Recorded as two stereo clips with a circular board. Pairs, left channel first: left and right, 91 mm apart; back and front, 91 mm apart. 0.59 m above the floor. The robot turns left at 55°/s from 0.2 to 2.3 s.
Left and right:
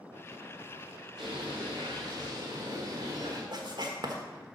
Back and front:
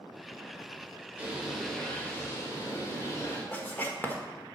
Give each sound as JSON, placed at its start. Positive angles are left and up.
{"t": 1.2, "sound": "a bird", "azimuth_deg": -70, "distance_m": 2.5}
{"t": 3.5, "sound": "writing", "azimuth_deg": -115, "distance_m": 1.4}